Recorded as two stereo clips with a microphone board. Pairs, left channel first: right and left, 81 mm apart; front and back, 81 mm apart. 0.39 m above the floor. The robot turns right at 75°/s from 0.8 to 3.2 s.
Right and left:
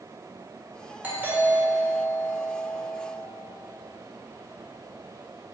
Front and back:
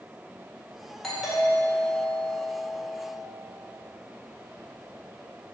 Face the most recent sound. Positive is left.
turn(degrees=-115)